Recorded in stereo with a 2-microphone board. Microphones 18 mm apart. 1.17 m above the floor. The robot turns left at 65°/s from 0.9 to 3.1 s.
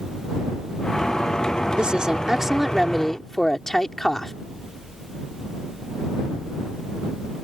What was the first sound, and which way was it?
A woman speaking, 115° right.